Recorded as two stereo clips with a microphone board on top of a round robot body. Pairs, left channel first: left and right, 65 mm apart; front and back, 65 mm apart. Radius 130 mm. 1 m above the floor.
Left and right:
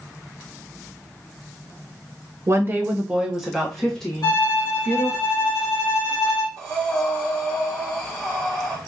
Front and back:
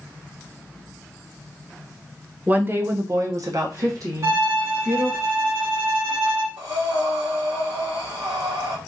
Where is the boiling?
No boiling in this recording.